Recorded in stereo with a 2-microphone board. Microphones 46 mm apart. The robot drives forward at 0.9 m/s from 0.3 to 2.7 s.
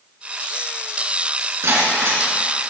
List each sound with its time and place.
1.6 s breaking glass: 75° right (ahead or behind), 3.5 m; by 2.2 s 65° right (ahead or behind), 4 m